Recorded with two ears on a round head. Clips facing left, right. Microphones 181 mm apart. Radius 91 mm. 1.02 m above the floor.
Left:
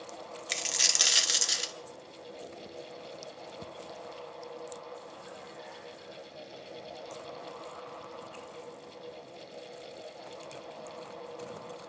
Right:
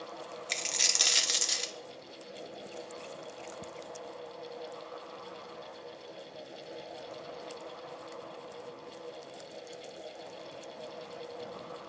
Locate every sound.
0.5 s a dropped coin: 5° left (ahead or behind), 0.6 m